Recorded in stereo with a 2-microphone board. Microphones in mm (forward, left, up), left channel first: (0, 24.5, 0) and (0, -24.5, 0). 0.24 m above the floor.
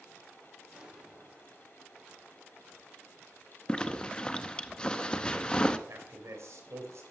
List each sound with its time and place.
0.7 s an explosion: 15° right (ahead or behind), 5.5 m
3.7 s a zipper: 20° left (ahead or behind), 0.6 m
5.9 s a man speaking: 70° right (ahead or behind), 3 m